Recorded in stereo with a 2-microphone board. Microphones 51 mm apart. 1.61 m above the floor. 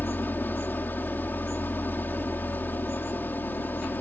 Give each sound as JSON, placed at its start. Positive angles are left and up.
{"t": 0.0, "sound": "an engine running", "side_deg": 40}